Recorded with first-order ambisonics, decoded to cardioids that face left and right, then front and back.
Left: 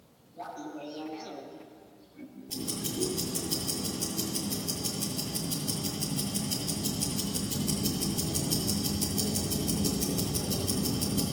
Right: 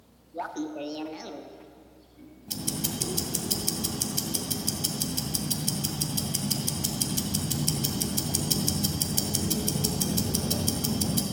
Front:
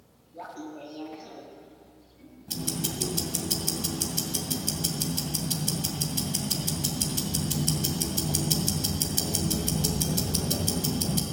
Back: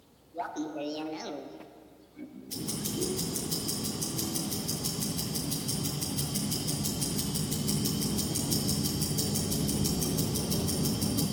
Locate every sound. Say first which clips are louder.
0.3 s laughter: right 6 dB, back 5 dB; 110° right, 0.9 m; by 3.3 s 130° left, 1.3 m
2.5 s ticking: right 3 dB, front 4 dB; 40° right, 1.8 m